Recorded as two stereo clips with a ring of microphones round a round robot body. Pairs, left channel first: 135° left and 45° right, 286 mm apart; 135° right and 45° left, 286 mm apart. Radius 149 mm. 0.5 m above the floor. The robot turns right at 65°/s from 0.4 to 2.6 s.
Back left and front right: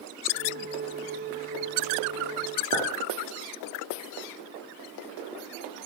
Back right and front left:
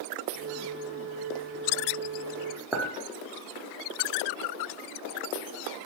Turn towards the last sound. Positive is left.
turn(degrees=-40)